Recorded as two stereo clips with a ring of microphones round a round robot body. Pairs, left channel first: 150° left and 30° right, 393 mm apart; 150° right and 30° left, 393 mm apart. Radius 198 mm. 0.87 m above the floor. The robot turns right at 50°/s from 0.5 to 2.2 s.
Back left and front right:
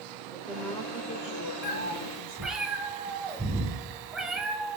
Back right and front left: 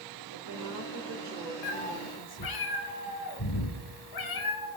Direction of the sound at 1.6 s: 145° right.